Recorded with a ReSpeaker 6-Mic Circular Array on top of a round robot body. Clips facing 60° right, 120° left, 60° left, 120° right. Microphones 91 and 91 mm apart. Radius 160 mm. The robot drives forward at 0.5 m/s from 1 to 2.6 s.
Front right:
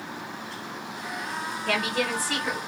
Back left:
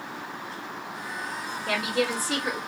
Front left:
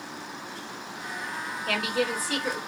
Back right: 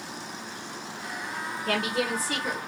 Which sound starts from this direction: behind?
A woman speaking, at 1.7 s.